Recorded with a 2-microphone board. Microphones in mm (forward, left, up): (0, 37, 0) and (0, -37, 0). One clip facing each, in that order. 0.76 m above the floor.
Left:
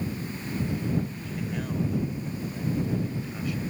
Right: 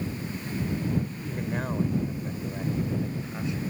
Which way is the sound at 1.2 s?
45° right (ahead or behind).